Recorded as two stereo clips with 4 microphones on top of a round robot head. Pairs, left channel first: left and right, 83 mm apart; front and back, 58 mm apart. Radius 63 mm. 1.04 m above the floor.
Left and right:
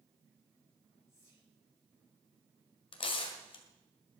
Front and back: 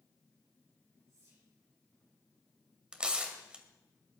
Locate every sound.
1.1 s whispering: 145° left, 9 m
2.9 s tearing paper: 105° left, 1.9 m